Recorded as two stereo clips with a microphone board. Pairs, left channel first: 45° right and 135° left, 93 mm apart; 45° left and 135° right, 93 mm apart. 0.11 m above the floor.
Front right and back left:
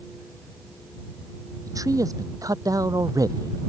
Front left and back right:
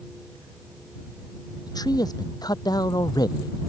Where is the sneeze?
No sneeze in this recording.